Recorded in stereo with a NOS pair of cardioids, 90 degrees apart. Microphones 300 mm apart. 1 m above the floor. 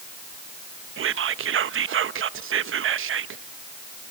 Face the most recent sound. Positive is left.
turn(degrees=-45)